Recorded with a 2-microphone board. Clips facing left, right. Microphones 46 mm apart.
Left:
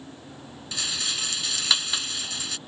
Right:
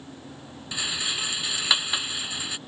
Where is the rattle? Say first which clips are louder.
Right 1 dB; 15° right (ahead or behind).